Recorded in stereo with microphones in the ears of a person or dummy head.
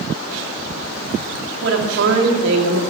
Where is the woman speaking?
70° right (ahead or behind), 3 m.